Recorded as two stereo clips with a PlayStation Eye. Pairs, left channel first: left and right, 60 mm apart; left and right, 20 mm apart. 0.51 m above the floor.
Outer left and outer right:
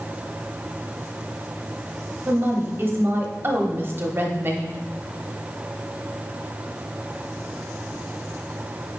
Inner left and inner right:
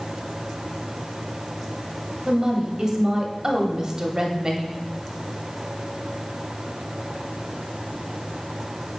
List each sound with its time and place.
2.2 s a woman speaking: 35° right (ahead or behind), 0.9 m